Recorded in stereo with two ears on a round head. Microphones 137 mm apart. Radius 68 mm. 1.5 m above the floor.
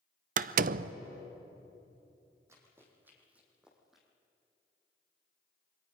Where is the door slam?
60° right (ahead or behind), 0.5 m.